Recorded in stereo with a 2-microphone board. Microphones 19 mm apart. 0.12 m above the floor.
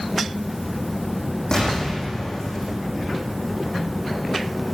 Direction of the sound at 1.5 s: 45° left (ahead or behind).